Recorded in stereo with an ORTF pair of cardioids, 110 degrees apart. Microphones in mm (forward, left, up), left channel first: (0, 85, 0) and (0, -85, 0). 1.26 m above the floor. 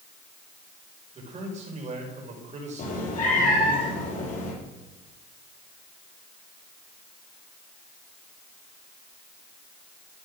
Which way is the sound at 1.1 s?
45° right.